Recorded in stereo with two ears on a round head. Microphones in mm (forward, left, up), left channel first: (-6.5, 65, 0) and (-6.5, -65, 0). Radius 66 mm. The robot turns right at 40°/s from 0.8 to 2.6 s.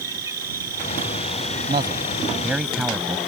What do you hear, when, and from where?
0.0 s an insect: 25° right; by 3.3 s 50° left
1.7 s a man speaking: 40° right; by 3.2 s 5° right